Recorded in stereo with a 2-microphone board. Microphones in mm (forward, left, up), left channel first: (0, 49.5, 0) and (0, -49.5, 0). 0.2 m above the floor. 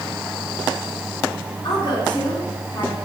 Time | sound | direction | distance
1.6 | a woman speaking | 55° left (ahead or behind) | 2.5 m